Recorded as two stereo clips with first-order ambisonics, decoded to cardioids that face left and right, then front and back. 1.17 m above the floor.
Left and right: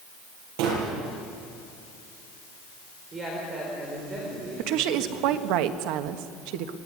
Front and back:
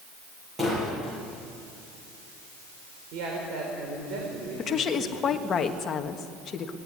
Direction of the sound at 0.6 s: 100° right.